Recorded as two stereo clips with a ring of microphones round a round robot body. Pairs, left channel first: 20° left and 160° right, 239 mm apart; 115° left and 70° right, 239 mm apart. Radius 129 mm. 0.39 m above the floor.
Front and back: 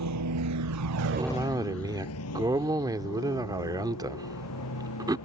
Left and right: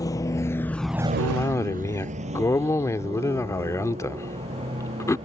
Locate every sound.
0.0 s a vehicle: 170° right; by 5.3 s straight ahead
1.2 s a cough: 165° left